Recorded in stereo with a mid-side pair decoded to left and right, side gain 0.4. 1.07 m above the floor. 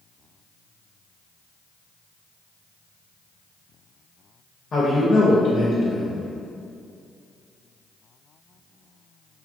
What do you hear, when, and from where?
4.7 s a man speaking: 40° left, 0.8 m